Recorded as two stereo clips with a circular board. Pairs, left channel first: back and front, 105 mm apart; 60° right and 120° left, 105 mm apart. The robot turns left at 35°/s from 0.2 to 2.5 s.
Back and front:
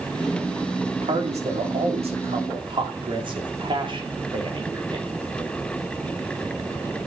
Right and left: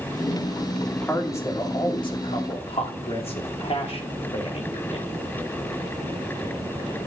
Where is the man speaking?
20° left, 2.5 m; by 5.0 s 40° right, 2.5 m.